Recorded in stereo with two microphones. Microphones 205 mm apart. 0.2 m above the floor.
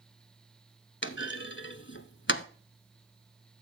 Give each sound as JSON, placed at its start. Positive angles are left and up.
{"t": 1.0, "sound": "a clunk", "side_deg": 60, "distance_m": 1.0}